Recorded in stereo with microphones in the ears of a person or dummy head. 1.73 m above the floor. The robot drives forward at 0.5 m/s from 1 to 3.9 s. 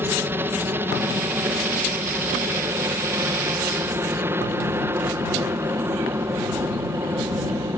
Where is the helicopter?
15° right (ahead or behind).